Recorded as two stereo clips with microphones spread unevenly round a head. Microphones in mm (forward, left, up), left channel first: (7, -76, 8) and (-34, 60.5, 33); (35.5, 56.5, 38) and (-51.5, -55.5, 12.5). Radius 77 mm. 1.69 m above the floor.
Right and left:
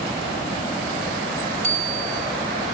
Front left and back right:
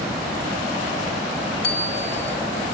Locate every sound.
1.6 s a bicycle bell: 65° left, 5 m